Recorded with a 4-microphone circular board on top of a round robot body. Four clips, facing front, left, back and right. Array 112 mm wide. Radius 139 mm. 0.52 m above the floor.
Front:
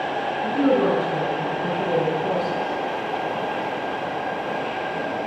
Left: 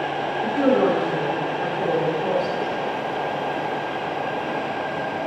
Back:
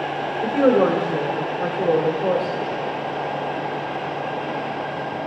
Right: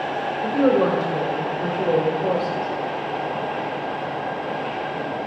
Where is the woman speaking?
165° right, 2 m.